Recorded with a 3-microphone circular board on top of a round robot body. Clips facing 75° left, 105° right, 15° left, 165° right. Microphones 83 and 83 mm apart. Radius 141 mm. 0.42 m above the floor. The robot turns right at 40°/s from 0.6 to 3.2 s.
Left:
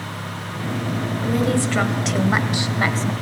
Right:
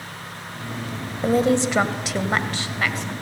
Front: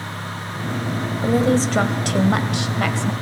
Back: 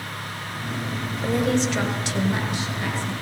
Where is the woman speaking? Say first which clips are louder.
Right 3 dB, front 4 dB; 50° right, 2.5 m; by 3.1 s 25° left, 2.5 m.